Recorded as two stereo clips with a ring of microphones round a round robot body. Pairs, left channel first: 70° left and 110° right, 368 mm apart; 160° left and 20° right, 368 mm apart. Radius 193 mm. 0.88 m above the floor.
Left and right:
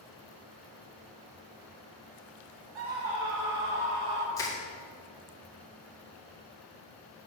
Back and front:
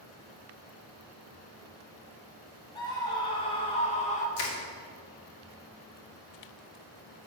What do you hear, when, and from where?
2.8 s a scream: 125° right, 2.5 m; by 4.3 s 130° right, 1.8 m
4.4 s crushing: 150° left, 2 m